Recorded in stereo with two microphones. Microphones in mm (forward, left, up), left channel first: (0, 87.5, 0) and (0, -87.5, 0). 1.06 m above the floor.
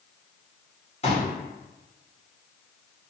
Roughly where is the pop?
Left.